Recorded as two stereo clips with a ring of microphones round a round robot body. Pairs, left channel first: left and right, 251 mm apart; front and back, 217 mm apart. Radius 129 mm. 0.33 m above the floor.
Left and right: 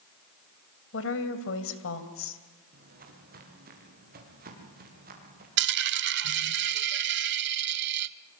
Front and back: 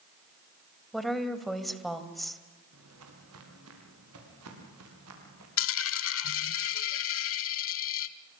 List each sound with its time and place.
0.9 s a woman speaking: 90° left, 2.5 m
2.7 s footsteps: 145° right, 5.5 m
5.6 s a dropped coin: 40° right, 0.6 m